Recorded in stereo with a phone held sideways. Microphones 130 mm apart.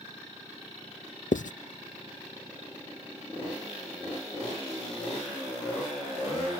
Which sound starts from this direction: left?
Writing, at 1.3 s.